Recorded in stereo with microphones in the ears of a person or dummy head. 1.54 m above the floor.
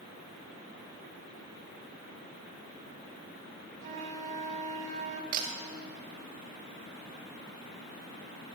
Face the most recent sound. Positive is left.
turn(degrees=-50)  # may be behind; listen again after turning